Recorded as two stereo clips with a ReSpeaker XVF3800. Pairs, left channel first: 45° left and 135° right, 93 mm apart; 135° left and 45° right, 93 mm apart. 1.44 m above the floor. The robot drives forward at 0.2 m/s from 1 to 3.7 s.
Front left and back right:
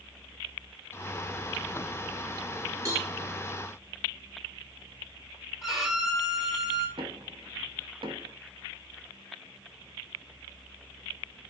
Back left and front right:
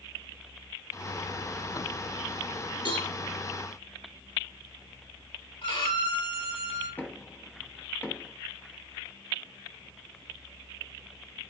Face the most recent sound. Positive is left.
turn(degrees=-160)